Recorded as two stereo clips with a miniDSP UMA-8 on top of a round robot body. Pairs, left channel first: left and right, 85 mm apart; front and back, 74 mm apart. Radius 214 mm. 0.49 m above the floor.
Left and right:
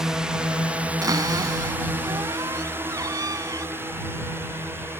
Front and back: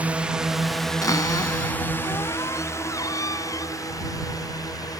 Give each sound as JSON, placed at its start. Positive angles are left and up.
{"t": 0.0, "sound": "a drone", "azimuth_deg": -160}
{"t": 1.0, "sound": "a cupboard door", "azimuth_deg": -40}